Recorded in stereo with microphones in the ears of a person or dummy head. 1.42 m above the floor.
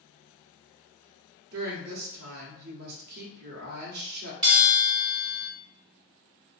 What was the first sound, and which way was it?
A woman speaking, 55° right (ahead or behind).